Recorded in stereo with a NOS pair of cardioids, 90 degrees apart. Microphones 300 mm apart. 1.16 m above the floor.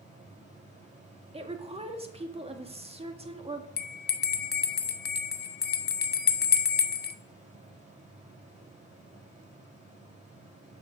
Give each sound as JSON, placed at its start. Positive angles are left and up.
{"t": 0.0, "sound": "a fan", "azimuth_deg": -25, "distance_m": 3.0}
{"t": 1.3, "sound": "a woman speaking", "azimuth_deg": -20, "distance_m": 1.6}
{"t": 3.8, "sound": "a bell", "azimuth_deg": 35, "distance_m": 0.8}